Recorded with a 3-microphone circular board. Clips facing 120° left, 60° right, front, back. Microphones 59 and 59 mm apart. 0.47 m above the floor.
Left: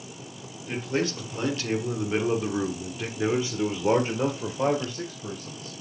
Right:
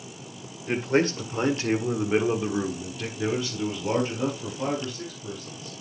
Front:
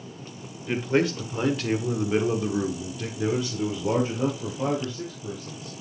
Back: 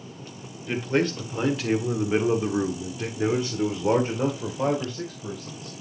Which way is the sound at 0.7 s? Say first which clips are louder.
Right 5 dB, front 1 dB; 80° right.